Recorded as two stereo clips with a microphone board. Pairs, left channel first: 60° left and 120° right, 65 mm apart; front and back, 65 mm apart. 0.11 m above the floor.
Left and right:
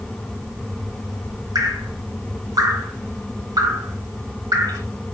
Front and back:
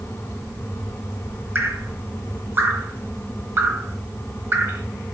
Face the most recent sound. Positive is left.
turn(degrees=-125)